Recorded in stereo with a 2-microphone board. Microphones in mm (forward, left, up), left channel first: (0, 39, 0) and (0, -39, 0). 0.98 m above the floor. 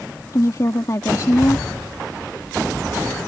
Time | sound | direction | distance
0.3 | a woman speaking | 50° left (ahead or behind) | ?